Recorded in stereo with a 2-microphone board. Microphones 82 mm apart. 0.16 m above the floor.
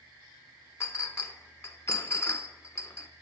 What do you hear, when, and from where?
0.8 s a clink: 35° left (ahead or behind), 0.8 m